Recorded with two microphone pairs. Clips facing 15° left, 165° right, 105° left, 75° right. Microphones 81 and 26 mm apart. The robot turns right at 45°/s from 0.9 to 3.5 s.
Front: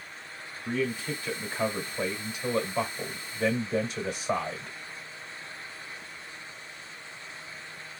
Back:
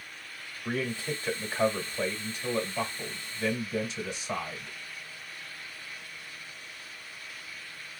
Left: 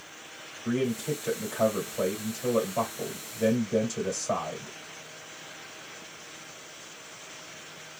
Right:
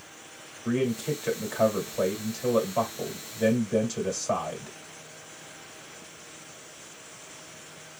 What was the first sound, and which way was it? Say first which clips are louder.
A man speaking: front 2 dB, right 1 dB; 125° right.